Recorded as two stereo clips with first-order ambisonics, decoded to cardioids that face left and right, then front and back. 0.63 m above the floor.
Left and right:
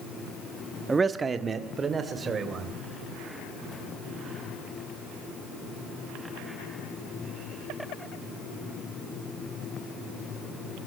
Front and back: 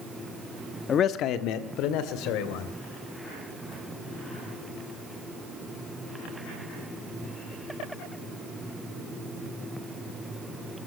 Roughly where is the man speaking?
Ahead.